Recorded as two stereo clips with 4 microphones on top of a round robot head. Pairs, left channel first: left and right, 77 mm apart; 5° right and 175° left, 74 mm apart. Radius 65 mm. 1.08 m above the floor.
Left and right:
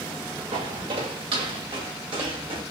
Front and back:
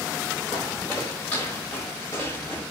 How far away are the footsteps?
About 6 m.